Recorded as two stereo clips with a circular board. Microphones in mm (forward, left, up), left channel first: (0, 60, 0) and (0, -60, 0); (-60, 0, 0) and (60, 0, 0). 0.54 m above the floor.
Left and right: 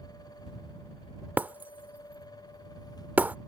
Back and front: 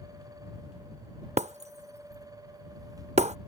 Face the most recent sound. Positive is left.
turn(degrees=-15)